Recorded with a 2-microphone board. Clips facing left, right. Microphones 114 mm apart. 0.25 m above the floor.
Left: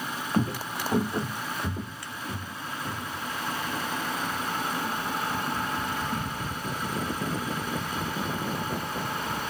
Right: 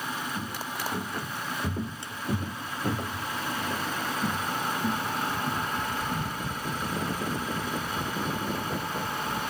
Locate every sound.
0.3 s footsteps: 55° left (ahead or behind), 1.0 m; by 7.2 s 80° right, 3.5 m